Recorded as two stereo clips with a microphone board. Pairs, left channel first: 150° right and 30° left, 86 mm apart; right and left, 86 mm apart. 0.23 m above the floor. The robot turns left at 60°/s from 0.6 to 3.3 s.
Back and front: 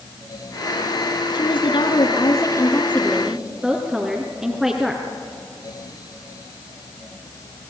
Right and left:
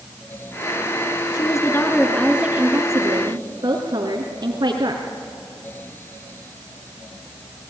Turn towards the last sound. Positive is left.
turn(degrees=120)